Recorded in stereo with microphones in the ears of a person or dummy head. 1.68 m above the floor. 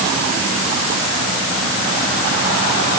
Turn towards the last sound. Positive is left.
No sound to turn to.